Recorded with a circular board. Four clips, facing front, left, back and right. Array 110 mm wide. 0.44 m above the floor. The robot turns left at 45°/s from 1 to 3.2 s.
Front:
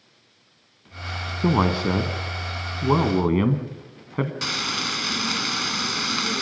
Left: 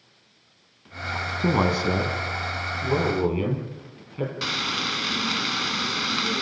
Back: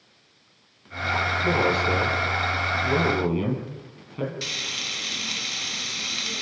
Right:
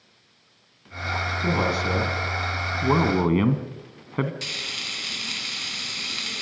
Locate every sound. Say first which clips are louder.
1.4 s a man speaking: left 3 dB, front 3 dB; 25° left, 3.5 m; by 4.3 s 55° right, 3.5 m
4.4 s frying: left 9 dB, front 8 dB; 45° left, 1.0 m